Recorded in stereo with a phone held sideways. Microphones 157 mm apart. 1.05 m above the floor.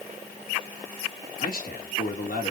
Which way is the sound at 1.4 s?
65° left (ahead or behind).